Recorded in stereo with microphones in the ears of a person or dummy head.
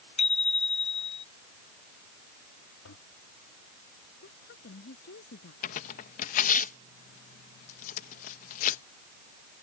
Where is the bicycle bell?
40° left (ahead or behind).